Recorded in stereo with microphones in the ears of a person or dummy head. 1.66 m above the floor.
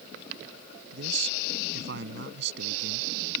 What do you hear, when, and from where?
0.9 s a man speaking: 65° right (ahead or behind)